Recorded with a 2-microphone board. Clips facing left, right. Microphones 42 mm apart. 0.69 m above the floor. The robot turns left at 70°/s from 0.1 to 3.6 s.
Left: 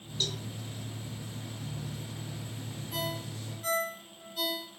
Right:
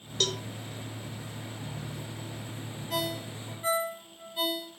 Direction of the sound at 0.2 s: 75° right (ahead or behind).